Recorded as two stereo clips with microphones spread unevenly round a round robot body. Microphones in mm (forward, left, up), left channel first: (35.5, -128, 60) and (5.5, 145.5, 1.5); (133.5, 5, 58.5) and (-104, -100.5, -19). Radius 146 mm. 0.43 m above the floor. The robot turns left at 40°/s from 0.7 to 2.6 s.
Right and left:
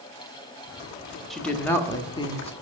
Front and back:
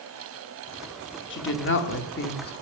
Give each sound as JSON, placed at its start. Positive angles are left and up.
{"t": 1.3, "sound": "a woman speaking", "azimuth_deg": 35, "distance_m": 1.0}